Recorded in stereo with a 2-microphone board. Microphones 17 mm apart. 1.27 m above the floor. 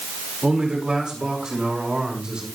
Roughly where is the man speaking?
Right.